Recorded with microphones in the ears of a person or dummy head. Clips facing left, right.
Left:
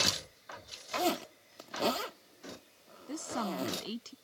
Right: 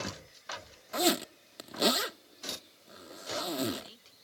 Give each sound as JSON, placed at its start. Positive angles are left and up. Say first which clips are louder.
{"t": 0.9, "sound": "a zipper", "louder": "right 3 dB", "side_deg": -15}
{"t": 3.1, "sound": "a woman speaking", "louder": "left 1 dB", "side_deg": 70}